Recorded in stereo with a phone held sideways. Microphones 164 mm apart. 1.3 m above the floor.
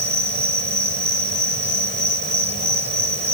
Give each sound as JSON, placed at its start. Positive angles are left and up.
{"t": 0.0, "sound": "an insect", "side_deg": -85}